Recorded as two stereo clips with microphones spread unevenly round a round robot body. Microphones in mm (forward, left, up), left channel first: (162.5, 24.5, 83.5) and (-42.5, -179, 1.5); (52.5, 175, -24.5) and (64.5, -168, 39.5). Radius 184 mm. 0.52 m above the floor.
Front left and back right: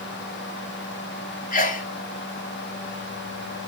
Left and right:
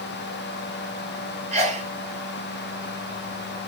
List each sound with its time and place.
1.5 s a sneeze: 15° right, 1.2 m